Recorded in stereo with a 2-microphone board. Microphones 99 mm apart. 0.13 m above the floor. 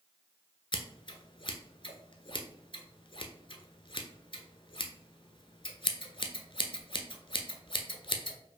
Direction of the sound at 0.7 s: 55° left (ahead or behind).